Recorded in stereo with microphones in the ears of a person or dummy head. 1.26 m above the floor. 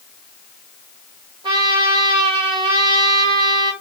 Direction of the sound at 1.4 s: 30° right (ahead or behind).